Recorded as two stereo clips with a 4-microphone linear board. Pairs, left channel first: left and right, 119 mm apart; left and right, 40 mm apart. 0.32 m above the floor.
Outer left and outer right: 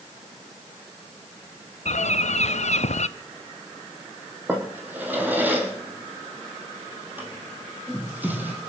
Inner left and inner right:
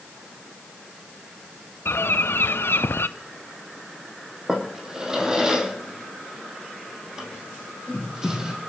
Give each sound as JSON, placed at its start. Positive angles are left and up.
{"t": 1.9, "sound": "a bird", "side_deg": 70, "distance_m": 0.5}
{"t": 4.5, "sound": "a drawer", "side_deg": -15, "distance_m": 3.0}